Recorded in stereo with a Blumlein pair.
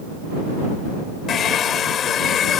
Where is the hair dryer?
25° left.